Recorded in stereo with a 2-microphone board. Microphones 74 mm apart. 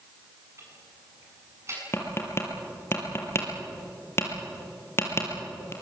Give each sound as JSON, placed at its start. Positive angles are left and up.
{"t": 0.6, "sound": "ticking", "side_deg": -40, "distance_m": 8.0}
{"t": 1.9, "sound": "tapping", "side_deg": 35, "distance_m": 4.0}